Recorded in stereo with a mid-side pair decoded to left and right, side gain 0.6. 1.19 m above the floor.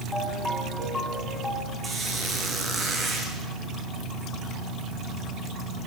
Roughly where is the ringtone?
Ahead.